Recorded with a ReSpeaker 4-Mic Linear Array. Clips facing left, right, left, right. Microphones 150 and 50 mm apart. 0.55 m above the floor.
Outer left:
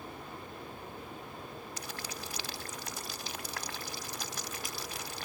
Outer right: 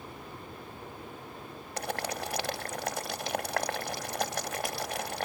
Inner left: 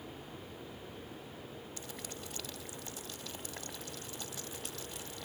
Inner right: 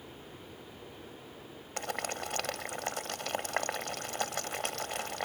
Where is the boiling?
75° right (ahead or behind).